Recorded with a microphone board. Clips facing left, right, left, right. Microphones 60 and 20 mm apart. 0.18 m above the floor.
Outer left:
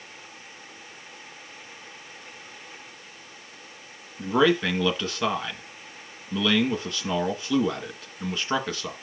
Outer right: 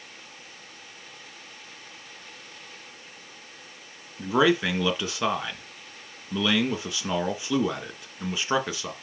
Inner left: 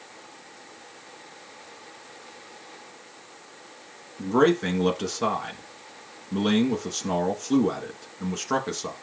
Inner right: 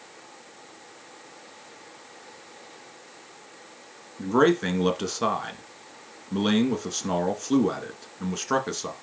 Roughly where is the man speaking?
Centre.